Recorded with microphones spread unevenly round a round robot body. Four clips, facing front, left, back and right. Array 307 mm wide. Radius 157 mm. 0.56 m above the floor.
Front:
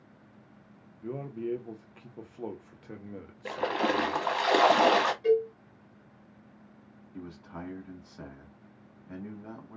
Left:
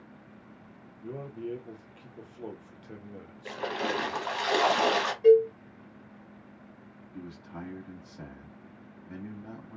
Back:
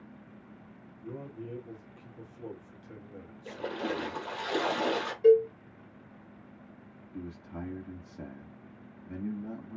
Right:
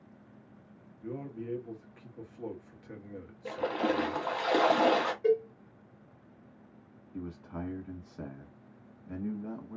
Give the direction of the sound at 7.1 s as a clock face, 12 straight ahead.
4 o'clock.